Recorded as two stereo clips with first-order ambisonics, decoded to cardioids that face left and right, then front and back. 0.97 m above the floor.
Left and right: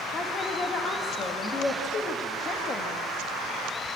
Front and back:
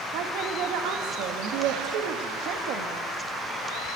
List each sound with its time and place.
0.1 s a woman speaking: 155° left, 1.6 m